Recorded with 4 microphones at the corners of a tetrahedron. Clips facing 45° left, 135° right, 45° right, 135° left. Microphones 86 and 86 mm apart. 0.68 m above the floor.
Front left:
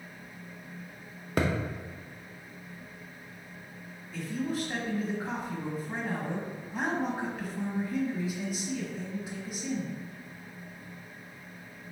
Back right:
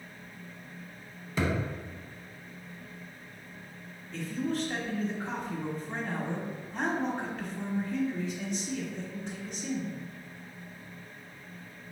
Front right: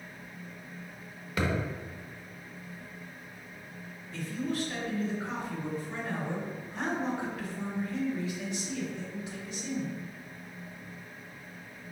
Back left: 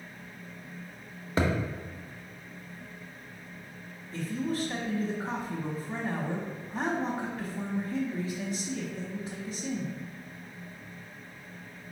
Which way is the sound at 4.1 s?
120° left.